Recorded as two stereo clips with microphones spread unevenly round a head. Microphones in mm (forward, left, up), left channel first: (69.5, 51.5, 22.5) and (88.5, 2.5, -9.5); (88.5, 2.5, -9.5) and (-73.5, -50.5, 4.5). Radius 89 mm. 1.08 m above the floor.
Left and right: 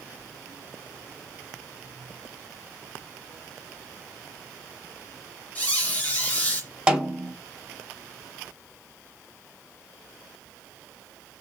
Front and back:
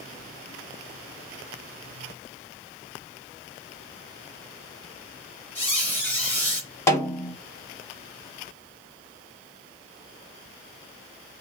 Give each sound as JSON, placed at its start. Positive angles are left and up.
{"t": 5.5, "sound": "a squeak", "azimuth_deg": 100, "distance_m": 1.6}
{"t": 6.9, "sound": "a snare drum", "azimuth_deg": -45, "distance_m": 1.1}